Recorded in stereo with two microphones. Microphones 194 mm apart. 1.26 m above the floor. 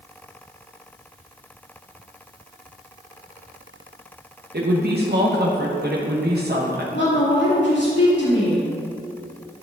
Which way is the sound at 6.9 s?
75° left (ahead or behind).